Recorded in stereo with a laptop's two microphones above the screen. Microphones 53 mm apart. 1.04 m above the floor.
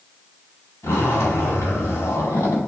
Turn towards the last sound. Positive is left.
turn(degrees=60)  # may be behind; listen again after turning